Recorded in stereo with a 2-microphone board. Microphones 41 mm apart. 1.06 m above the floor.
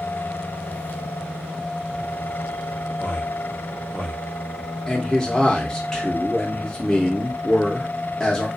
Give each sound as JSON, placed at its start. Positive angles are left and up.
{"t": 3.0, "sound": "a man speaking", "side_deg": 40, "distance_m": 1.0}
{"t": 4.9, "sound": "a man speaking", "side_deg": 10, "distance_m": 0.8}